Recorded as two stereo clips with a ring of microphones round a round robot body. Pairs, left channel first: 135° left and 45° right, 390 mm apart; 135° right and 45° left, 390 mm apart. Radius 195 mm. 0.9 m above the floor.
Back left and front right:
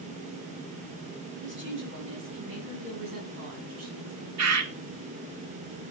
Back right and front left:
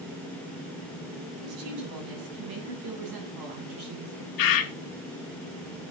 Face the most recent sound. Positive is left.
turn(degrees=-95)